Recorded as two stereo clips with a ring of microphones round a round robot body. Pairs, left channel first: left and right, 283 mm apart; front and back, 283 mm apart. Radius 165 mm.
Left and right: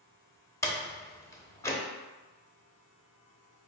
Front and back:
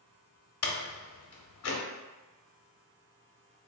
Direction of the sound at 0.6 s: 10° left.